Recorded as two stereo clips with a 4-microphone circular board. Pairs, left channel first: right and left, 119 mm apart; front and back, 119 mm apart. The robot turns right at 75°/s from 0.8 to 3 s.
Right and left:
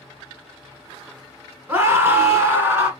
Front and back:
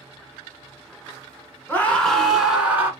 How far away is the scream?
About 1.3 m.